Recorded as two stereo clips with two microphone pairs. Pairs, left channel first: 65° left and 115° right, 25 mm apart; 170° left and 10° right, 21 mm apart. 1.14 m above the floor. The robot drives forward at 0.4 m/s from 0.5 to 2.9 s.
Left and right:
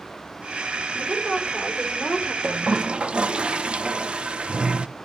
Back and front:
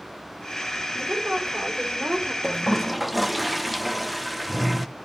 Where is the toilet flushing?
70° right, 0.6 m; by 4.9 s 90° right, 0.6 m.